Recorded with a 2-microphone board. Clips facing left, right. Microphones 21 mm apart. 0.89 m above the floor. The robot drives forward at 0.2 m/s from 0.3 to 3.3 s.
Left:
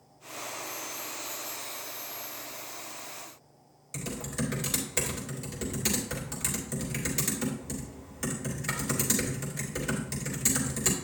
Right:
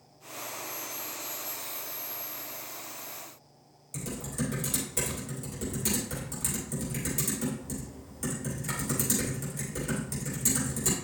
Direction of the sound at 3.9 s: 30° left (ahead or behind).